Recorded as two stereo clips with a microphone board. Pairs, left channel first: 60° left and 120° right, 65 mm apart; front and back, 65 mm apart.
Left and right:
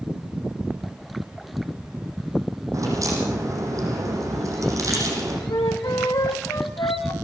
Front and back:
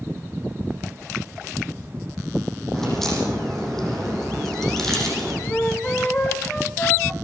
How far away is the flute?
About 3 m.